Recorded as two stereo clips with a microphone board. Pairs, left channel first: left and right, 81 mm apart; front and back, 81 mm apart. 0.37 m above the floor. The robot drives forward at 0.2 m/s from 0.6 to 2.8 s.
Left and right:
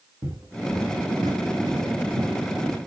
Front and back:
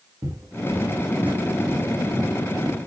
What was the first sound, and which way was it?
Footsteps, 140° right.